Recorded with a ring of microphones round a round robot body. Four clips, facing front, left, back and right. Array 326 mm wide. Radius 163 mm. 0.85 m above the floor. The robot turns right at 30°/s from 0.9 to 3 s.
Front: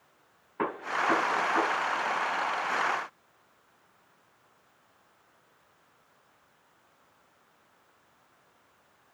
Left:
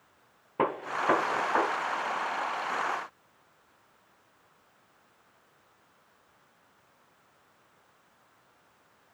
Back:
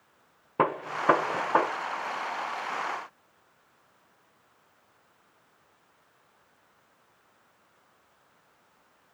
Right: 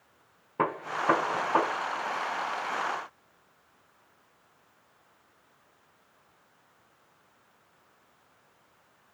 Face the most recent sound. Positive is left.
turn(degrees=-120)